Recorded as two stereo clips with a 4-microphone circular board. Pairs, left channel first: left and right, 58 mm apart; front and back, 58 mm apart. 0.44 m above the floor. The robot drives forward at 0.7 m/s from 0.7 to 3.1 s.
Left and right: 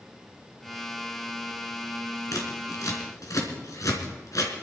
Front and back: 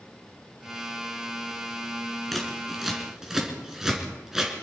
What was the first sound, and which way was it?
Scissors, 90° left.